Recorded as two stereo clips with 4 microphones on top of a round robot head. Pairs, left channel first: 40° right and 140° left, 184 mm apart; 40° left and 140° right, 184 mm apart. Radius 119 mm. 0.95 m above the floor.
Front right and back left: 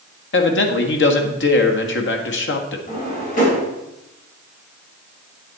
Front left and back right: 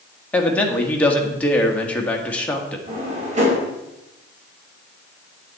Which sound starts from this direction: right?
A drawer, at 2.9 s.